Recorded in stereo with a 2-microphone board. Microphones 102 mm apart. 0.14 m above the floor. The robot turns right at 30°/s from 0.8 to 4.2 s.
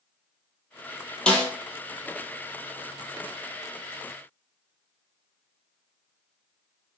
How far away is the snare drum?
About 1.0 m.